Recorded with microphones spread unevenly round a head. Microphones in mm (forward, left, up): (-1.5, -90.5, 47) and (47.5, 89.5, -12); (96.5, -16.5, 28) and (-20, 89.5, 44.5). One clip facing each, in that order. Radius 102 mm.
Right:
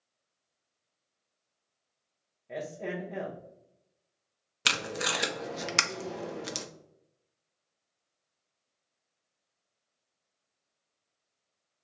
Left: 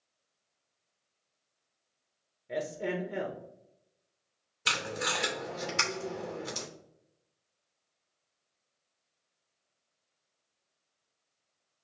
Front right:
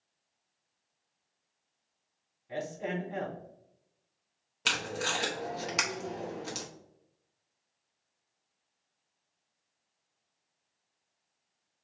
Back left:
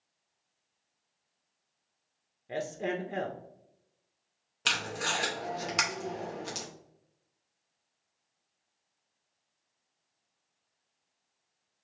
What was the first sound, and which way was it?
A man speaking, 135° left.